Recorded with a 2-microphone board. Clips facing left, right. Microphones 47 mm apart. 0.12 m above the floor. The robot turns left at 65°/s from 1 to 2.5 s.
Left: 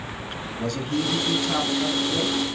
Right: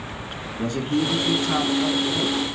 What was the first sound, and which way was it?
A man speaking, 75° right.